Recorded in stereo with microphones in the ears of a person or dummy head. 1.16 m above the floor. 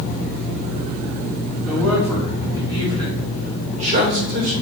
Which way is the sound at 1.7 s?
10° right (ahead or behind).